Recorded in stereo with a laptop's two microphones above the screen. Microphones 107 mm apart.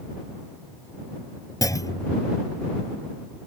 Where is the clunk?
35° left (ahead or behind).